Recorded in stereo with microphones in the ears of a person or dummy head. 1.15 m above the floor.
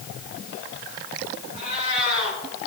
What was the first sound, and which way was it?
A cat meowing, 40° left (ahead or behind).